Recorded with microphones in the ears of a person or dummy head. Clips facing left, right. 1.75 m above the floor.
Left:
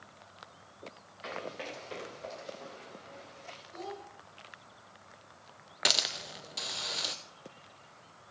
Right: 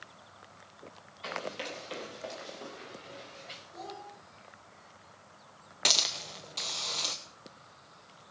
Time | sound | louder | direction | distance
1.2 | running footsteps | right 2 dB | 5° left (ahead or behind) | 1.8 m
3.7 | a child speaking | left 2 dB | 45° left (ahead or behind) | 9 m
5.8 | a hiss | left 1 dB | 5° left (ahead or behind) | 0.8 m